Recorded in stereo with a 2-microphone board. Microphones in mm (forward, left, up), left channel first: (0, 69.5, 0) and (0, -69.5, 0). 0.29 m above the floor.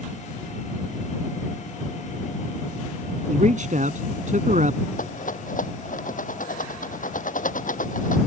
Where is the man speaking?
65° right (ahead or behind).